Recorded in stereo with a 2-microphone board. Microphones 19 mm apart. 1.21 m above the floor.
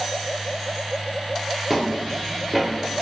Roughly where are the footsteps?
Centre.